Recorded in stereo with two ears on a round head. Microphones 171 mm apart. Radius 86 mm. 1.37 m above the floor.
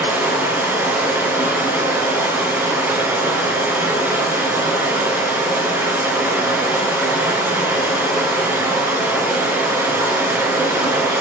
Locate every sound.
0.0 s running water: 15° right (ahead or behind), 5 m